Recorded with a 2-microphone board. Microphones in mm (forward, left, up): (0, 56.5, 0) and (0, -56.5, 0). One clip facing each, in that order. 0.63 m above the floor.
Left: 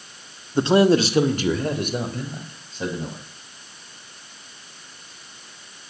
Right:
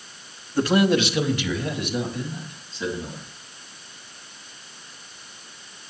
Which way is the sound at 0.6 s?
20° left (ahead or behind).